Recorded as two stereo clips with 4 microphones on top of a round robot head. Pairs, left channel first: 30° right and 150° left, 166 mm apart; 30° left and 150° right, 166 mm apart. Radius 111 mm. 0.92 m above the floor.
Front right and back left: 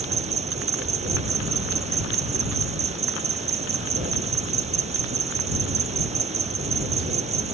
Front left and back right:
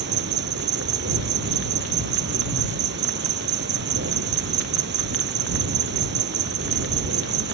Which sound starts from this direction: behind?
An insect, at 0.0 s.